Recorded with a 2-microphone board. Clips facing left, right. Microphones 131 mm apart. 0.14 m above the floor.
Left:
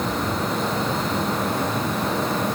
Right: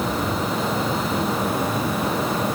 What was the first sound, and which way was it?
Only background noise.